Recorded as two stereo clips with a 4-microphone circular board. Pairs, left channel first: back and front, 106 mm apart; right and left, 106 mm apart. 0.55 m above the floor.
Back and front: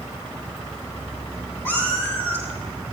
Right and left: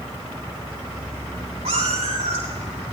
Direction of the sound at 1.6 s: 110° left.